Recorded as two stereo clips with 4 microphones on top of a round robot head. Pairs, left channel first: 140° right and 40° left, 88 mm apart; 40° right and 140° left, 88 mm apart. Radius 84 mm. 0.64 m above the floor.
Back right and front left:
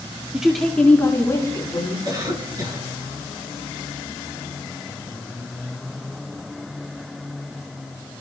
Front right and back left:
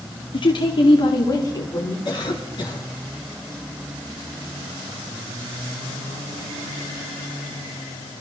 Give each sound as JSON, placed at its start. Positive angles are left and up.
{"t": 0.3, "sound": "a woman speaking", "azimuth_deg": -35, "distance_m": 1.6}
{"t": 2.0, "sound": "a cough", "azimuth_deg": -5, "distance_m": 6.5}